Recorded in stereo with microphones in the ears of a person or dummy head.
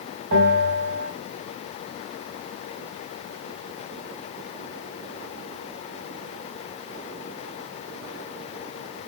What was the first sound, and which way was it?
A bell, 60° right (ahead or behind).